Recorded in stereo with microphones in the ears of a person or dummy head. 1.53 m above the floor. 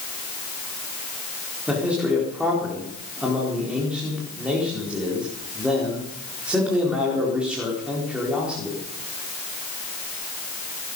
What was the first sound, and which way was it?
A man speaking, centre (ahead or behind).